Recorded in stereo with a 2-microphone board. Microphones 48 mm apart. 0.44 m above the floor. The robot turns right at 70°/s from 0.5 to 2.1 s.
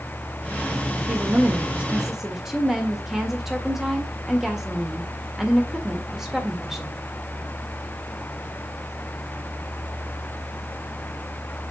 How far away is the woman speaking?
About 1.5 m.